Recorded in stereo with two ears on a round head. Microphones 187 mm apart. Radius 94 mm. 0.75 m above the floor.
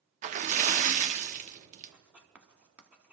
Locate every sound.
0.2 s a splash: 35° right (ahead or behind), 0.5 m
1.9 s writing: 5° right (ahead or behind), 1.1 m